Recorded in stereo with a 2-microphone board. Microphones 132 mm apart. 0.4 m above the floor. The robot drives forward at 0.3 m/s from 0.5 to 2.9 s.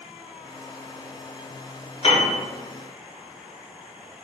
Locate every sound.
2.0 s a piano: 45° left (ahead or behind), 1.2 m